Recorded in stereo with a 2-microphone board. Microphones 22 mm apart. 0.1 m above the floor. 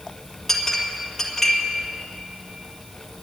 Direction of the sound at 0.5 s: 15° left (ahead or behind).